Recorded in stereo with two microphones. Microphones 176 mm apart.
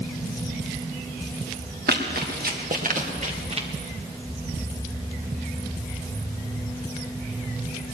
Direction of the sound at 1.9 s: 65° right (ahead or behind).